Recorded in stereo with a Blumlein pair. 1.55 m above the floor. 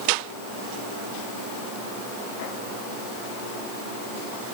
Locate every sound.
Only background noise.